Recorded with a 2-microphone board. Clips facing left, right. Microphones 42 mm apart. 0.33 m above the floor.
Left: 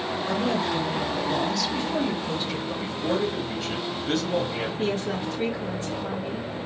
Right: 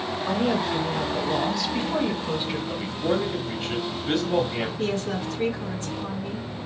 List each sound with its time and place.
0.3 s a woman speaking: 20° right (ahead or behind), 1.0 m
2.7 s a man speaking: 20° right (ahead or behind), 1.3 m
4.8 s a woman speaking: 10° left (ahead or behind), 1.8 m